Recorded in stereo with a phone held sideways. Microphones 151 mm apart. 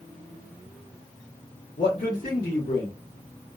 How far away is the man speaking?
About 1.1 m.